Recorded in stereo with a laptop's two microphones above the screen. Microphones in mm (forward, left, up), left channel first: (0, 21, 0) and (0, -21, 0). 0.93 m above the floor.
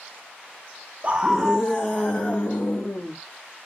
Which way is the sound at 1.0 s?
30° right (ahead or behind).